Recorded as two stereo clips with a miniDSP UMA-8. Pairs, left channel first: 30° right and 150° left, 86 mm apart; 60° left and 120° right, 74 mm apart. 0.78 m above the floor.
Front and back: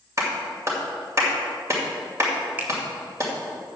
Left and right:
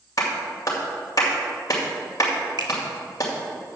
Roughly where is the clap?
Left.